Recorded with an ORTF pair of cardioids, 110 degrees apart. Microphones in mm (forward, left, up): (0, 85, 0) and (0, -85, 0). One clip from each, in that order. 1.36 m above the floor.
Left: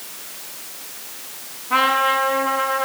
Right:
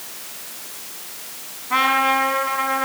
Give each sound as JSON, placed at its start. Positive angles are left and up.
{"t": 1.7, "sound": "a trumpet", "azimuth_deg": -20, "distance_m": 6.5}